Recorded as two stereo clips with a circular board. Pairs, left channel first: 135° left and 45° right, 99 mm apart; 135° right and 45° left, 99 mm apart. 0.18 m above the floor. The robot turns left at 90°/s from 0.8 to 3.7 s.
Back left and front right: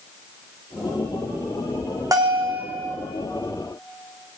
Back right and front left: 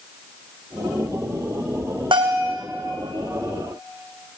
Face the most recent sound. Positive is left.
turn(degrees=-135)